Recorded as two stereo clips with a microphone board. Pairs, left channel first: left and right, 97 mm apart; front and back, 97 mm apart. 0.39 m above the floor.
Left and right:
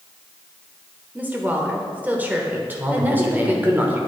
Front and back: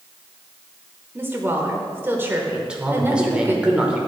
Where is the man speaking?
120° right, 0.8 m.